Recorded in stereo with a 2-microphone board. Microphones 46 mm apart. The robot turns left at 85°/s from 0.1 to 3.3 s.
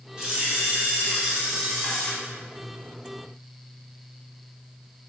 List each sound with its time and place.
0.2 s a camera shutter: 15° right (ahead or behind), 0.7 m; by 2.1 s 10° left (ahead or behind), 0.7 m